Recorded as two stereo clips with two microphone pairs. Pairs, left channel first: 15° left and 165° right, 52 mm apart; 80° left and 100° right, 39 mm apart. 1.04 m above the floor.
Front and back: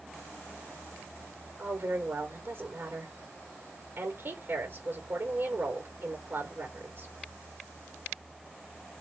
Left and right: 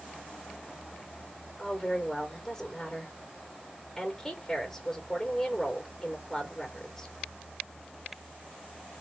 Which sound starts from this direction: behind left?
A woman speaking, at 1.6 s.